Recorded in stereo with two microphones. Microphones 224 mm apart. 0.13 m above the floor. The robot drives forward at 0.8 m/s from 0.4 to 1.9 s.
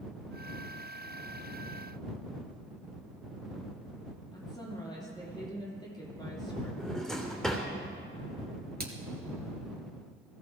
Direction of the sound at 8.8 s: 45° right (ahead or behind).